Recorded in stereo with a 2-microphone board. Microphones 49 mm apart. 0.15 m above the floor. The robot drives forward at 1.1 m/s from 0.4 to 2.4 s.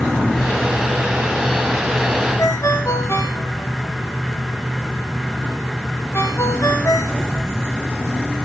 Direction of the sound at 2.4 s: 70° left (ahead or behind).